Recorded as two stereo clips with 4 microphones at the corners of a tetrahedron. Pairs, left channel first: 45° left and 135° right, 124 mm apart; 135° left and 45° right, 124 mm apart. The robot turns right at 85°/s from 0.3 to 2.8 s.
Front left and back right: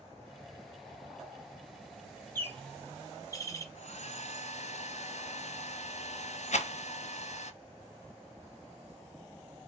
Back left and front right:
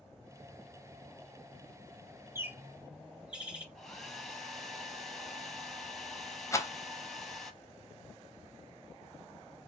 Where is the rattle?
70° left, 0.6 m.